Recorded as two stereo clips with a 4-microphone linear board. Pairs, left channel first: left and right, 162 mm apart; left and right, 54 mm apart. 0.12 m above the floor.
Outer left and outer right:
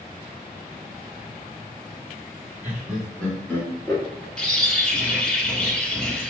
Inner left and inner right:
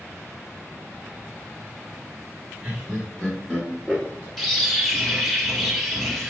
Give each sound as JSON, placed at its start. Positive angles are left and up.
{"t": 2.6, "sound": "laughter", "side_deg": -15, "distance_m": 1.5}
{"t": 4.4, "sound": "a bird", "side_deg": 5, "distance_m": 1.2}